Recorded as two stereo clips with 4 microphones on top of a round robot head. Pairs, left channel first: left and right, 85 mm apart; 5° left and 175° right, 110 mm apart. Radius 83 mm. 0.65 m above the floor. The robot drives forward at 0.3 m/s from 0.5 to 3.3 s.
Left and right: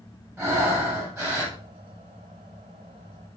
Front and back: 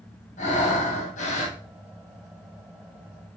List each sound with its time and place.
0.4 s breathing: 30° right, 4 m